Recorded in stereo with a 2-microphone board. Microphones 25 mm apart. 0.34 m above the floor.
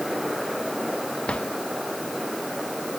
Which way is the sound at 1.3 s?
45° left (ahead or behind).